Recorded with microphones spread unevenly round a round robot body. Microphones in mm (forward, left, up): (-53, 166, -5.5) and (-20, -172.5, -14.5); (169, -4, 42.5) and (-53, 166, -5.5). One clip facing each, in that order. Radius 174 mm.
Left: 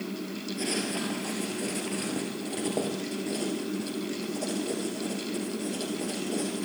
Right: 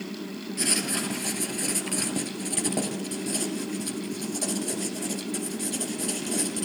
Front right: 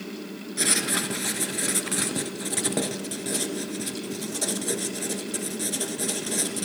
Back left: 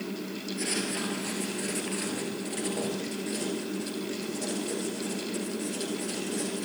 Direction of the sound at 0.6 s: 25° right.